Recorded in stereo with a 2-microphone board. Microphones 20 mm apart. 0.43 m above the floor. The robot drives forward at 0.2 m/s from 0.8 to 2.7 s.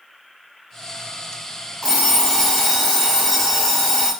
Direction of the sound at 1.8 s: 15° left (ahead or behind).